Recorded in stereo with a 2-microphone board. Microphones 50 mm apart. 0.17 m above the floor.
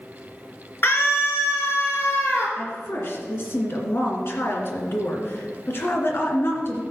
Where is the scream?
50° left (ahead or behind), 2.5 m; by 2.5 s 65° left (ahead or behind), 4 m.